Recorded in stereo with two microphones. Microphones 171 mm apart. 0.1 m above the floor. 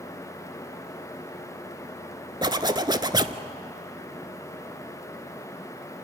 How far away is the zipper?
About 0.7 m.